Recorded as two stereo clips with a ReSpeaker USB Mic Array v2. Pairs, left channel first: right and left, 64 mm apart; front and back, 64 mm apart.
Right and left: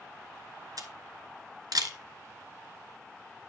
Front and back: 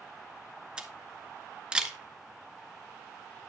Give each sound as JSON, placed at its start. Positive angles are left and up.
{"t": 0.8, "sound": "a camera shutter", "azimuth_deg": 105, "distance_m": 0.9}